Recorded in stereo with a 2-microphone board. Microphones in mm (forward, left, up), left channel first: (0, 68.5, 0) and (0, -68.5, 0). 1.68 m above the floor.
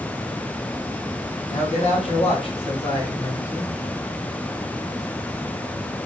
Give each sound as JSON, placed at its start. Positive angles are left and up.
{"t": 1.5, "sound": "a man speaking", "side_deg": 55, "distance_m": 2.5}